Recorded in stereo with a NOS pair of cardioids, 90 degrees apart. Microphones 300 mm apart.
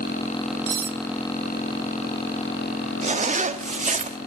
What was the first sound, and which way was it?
Cutlery clinking, 45° right.